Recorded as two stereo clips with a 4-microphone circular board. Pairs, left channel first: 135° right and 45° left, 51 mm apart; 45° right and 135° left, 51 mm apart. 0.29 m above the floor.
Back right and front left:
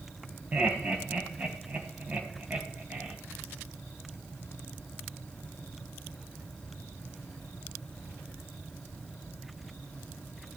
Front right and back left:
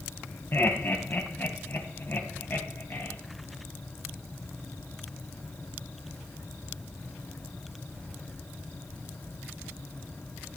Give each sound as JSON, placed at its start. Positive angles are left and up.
{"t": 0.5, "sound": "laughter", "azimuth_deg": -15, "distance_m": 1.5}